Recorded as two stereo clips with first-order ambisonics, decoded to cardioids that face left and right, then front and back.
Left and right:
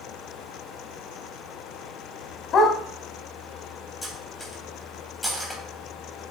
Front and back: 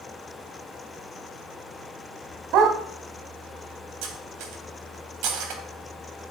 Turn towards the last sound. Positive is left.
turn(degrees=170)